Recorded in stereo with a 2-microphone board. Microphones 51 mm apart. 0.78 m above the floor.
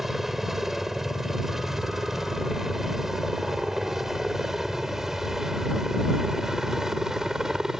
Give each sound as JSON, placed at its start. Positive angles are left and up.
{"t": 0.0, "sound": "a helicopter", "side_deg": -5}